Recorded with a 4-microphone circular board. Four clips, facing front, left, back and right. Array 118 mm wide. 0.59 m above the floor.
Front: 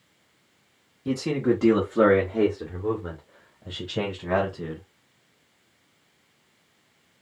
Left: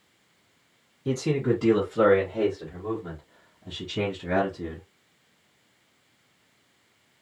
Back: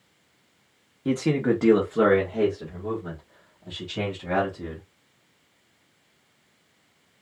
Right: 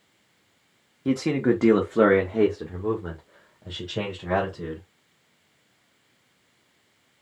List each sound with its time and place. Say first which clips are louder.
1.1 s a man speaking: right 3 dB, back 1 dB; 125° right, 0.9 m; by 4.8 s 45° right, 2 m